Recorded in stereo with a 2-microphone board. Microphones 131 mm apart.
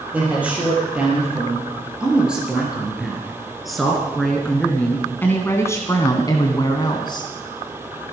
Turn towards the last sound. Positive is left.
turn(degrees=35)  # may be behind; listen again after turning